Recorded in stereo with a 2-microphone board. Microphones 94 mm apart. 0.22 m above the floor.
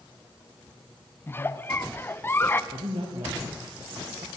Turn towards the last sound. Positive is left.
turn(degrees=-65)  # may be behind; listen again after turning